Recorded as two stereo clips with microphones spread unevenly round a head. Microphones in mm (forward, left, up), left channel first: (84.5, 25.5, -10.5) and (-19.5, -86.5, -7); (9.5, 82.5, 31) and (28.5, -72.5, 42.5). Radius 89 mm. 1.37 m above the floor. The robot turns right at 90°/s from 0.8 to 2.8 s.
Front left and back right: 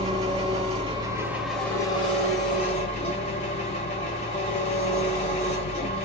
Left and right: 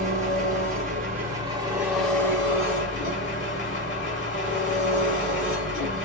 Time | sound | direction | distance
0.0 | an engine running | 110° right | 1.4 m